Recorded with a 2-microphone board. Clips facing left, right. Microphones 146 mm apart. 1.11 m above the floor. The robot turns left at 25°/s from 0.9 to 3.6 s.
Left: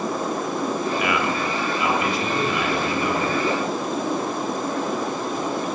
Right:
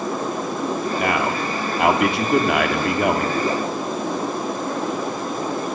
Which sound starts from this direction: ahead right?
A man speaking, at 1.0 s.